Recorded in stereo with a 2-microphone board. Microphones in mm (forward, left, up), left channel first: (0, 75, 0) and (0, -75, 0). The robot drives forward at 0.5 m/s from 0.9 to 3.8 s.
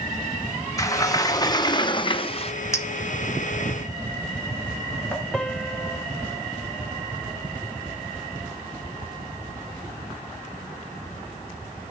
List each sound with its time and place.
0.8 s a sliding door: 20° left (ahead or behind), 1.3 m; by 2.5 s 45° left (ahead or behind), 0.7 m
2.7 s a clink: 20° left (ahead or behind), 1.7 m; by 5.2 s 15° left (ahead or behind), 2 m
5.3 s a piano: 5° left (ahead or behind), 0.7 m